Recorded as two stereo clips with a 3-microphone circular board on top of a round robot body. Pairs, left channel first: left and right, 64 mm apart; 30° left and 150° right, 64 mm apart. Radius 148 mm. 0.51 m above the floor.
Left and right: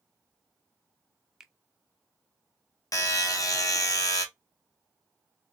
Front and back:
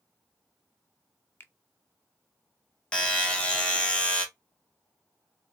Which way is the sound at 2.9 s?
105° left.